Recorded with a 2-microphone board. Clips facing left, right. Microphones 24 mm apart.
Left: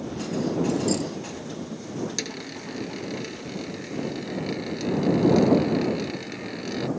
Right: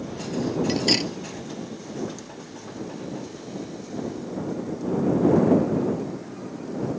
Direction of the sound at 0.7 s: 60° right (ahead or behind).